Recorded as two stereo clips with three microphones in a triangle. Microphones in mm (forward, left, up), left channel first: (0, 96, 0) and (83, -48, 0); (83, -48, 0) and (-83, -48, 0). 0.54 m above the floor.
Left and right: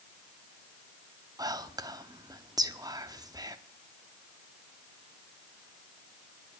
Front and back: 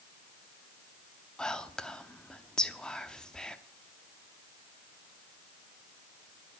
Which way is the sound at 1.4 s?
80° right.